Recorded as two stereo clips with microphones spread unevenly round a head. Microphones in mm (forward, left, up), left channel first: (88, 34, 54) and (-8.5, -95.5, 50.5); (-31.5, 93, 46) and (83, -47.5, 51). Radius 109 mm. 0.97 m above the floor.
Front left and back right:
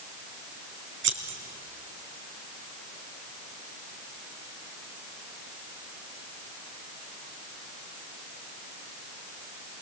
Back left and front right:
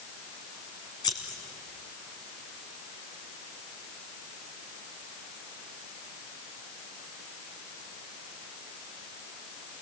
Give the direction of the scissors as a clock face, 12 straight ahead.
5 o'clock.